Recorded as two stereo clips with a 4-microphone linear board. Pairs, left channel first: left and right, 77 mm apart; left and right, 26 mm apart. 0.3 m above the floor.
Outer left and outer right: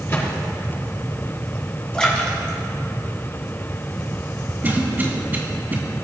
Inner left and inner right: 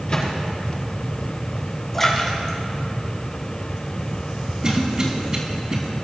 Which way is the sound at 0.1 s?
35° left (ahead or behind).